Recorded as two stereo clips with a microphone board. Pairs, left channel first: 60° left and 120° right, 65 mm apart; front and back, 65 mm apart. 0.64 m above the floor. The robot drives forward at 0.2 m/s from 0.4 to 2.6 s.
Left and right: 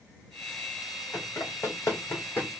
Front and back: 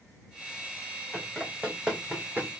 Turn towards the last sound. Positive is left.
turn(degrees=125)